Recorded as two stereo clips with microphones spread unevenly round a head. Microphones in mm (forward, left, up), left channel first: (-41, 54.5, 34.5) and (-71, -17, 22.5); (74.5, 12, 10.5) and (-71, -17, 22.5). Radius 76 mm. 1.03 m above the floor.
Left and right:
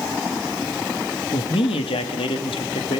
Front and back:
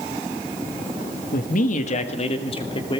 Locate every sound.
1.3 s a man speaking: 40° left, 1.4 m; by 3.0 s 70° left, 2.5 m